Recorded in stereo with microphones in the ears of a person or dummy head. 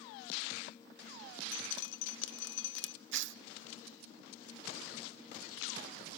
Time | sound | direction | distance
1.5 | dripping | 80° left | 1.3 m
3.1 | tearing paper | 70° right (ahead or behind) | 0.7 m